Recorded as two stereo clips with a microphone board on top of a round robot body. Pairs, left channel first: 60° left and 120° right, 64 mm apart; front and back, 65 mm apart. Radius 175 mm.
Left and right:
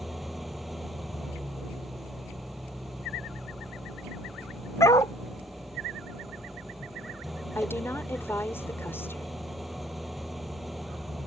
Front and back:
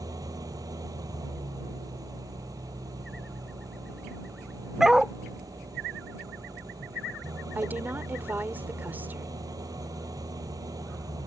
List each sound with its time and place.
0.0 s an engine running: 150° left
4.8 s a dog barking: 95° left
7.5 s a woman speaking: 115° left